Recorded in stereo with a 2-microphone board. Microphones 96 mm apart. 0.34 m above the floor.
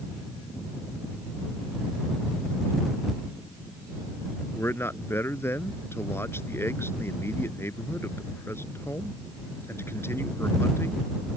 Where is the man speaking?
25° left (ahead or behind).